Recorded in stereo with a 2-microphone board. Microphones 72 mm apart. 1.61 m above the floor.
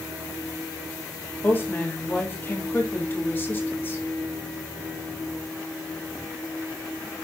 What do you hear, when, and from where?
1.4 s a woman speaking: 25° left (ahead or behind), 3.5 m